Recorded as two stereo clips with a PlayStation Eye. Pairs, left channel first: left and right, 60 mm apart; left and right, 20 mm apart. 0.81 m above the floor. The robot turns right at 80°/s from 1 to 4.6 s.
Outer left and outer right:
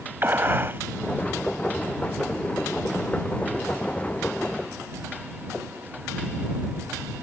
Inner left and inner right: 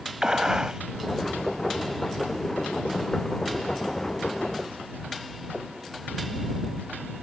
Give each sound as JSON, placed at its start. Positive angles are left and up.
{"t": 0.2, "sound": "a gunshot", "side_deg": -35}